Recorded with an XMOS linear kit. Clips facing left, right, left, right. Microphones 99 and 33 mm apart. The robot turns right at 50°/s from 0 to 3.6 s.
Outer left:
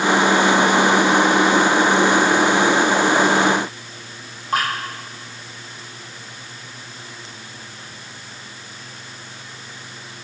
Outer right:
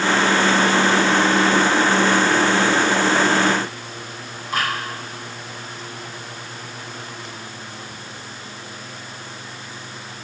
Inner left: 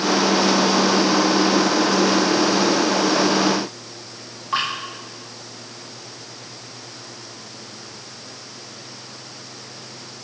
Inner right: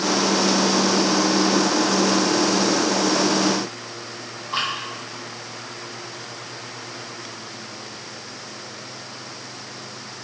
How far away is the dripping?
About 5 m.